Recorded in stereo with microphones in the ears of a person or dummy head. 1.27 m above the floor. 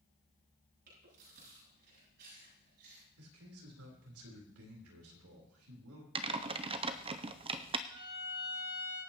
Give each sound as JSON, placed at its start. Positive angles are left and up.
{"t": 0.9, "sound": "chewing", "side_deg": -60, "distance_m": 9.0}
{"t": 3.2, "sound": "a man speaking", "side_deg": -85, "distance_m": 3.5}
{"t": 6.2, "sound": "typing on a keyboard", "side_deg": -25, "distance_m": 0.6}
{"t": 7.9, "sound": "a violin", "side_deg": -80, "distance_m": 9.0}